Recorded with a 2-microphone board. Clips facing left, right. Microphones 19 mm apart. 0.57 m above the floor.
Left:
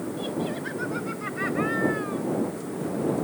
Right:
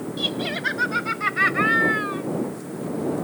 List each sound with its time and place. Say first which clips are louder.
0.2 s laughter: right 7 dB; 70° right (ahead or behind); by 2.2 s 45° right (ahead or behind)